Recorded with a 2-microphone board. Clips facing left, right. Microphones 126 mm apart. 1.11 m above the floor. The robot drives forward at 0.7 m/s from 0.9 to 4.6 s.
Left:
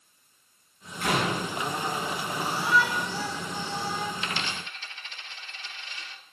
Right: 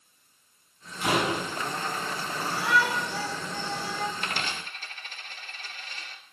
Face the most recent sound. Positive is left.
turn(degrees=-45)  # may be behind; listen again after turning